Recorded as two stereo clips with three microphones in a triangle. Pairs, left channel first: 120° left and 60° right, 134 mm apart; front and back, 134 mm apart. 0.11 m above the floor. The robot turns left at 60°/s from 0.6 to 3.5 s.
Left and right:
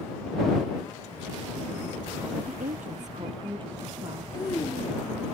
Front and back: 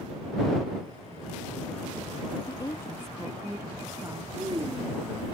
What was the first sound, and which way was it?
A woman speaking, 50° right.